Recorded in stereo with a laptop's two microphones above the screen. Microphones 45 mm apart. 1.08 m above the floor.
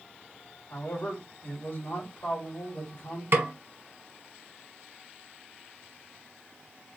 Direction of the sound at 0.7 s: 80° left.